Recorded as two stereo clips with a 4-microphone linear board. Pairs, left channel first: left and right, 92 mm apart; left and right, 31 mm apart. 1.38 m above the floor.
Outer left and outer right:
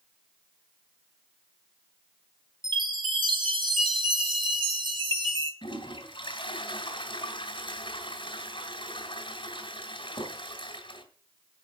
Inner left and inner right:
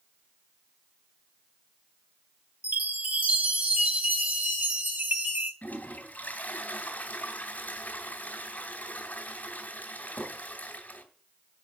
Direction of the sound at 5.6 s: 65° left (ahead or behind).